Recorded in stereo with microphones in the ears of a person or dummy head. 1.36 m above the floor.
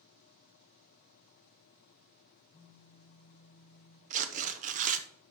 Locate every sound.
2.5 s a phone buzzing: 55° left (ahead or behind), 1.2 m
4.1 s tearing paper: 40° right (ahead or behind), 0.8 m